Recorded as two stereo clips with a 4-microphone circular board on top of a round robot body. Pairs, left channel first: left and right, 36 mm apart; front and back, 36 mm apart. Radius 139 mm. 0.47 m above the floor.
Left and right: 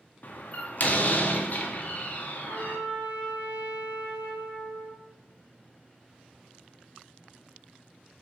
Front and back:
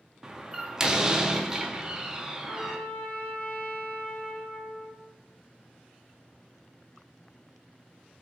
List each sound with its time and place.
0.2 s a door slam: 110° left, 0.8 m
2.5 s a trumpet: 50° right, 1.8 m